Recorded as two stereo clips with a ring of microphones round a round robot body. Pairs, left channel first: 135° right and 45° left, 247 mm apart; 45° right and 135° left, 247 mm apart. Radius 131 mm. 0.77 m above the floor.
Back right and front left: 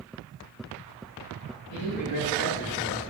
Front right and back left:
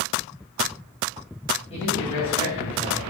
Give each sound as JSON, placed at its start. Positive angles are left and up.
{"t": 1.7, "sound": "a man speaking", "azimuth_deg": -110, "distance_m": 4.5}